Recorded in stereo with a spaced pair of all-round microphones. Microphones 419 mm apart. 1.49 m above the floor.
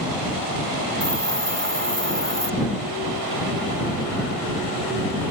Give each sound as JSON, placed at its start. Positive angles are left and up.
{"t": 1.0, "sound": "a hiss", "side_deg": -25}